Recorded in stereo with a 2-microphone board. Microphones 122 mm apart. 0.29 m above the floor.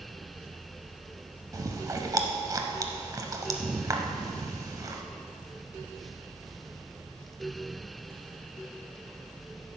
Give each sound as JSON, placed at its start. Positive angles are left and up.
{"t": 1.5, "sound": "chewing", "side_deg": -30, "distance_m": 0.7}